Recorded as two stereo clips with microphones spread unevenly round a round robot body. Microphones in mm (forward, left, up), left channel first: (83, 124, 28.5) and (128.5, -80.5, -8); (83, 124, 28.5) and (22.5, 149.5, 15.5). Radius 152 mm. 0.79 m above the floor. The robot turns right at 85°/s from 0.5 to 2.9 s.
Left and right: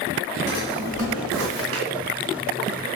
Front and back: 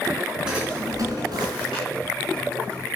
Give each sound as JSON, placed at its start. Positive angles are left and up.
{"t": 0.5, "sound": "a drawer", "azimuth_deg": -170, "distance_m": 2.5}